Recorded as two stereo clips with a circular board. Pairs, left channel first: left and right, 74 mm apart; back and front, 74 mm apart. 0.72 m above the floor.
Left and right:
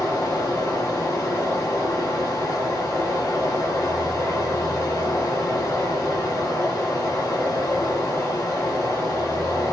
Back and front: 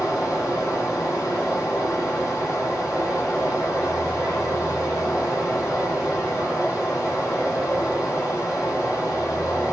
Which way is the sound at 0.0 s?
135° left.